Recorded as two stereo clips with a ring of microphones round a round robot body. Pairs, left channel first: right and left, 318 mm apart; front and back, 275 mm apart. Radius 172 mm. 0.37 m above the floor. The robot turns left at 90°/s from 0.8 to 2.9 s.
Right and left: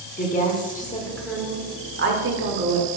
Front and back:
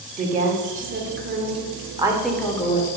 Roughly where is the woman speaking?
Behind right.